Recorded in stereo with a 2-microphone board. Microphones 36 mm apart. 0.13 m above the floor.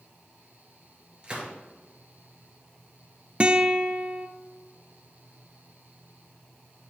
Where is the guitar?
30° right (ahead or behind), 0.5 m.